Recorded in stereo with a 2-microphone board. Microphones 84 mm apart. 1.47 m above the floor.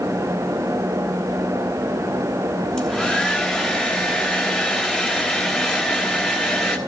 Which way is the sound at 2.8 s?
10° left (ahead or behind).